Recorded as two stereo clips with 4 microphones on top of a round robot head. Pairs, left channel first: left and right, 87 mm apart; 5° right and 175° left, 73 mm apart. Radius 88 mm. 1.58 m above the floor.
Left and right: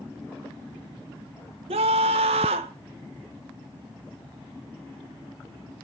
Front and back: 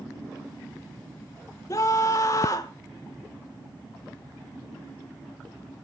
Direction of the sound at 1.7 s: 70° right.